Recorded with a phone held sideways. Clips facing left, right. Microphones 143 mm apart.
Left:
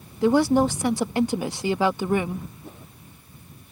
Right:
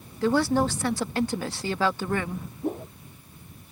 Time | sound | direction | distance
0.2 | a woman speaking | 15° left (ahead or behind) | ?
2.6 | a whoosh | 50° right (ahead or behind) | ?